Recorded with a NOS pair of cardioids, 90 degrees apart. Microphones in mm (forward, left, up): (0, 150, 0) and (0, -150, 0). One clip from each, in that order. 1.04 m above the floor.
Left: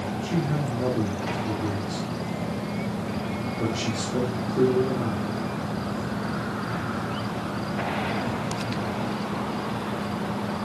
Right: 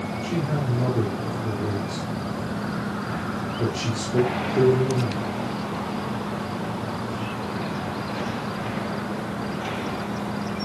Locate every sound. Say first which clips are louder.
0.2 s a man speaking: right 2 dB; 15° right, 4 m